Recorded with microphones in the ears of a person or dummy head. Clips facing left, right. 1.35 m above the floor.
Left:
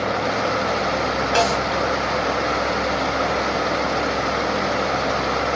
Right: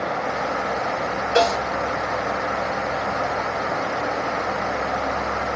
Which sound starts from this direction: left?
A snare drum, at 1.4 s.